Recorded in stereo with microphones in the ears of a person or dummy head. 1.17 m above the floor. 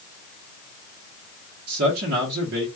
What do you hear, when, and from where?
1.7 s a man speaking: 60° right (ahead or behind), 1.0 m